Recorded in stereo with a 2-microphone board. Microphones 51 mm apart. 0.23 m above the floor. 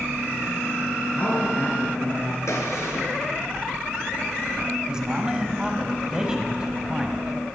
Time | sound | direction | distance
1.1 | a man speaking | 35° left (ahead or behind) | 4 m
2.5 | a gunshot | 75° left (ahead or behind) | 1.7 m
4.9 | a man speaking | 15° right (ahead or behind) | 1.1 m